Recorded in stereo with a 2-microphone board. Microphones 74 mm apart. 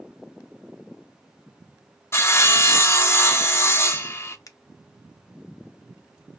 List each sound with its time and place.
2.1 s sawing: 35° left (ahead or behind), 0.6 m
4.5 s a finger snap: 50° left (ahead or behind), 0.5 m